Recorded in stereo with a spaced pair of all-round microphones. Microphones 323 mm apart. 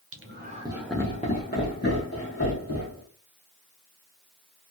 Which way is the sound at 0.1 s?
45° right (ahead or behind).